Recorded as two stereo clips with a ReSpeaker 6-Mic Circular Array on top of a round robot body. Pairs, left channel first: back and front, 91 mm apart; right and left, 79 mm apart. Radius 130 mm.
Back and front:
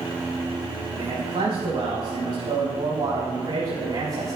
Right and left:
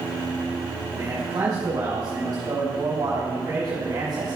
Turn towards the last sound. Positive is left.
turn(degrees=50)